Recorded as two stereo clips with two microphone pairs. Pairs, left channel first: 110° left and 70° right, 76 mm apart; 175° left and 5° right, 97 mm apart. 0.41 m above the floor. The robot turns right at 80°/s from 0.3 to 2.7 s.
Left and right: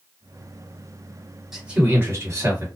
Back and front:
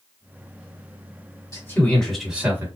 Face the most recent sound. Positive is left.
turn(degrees=-55)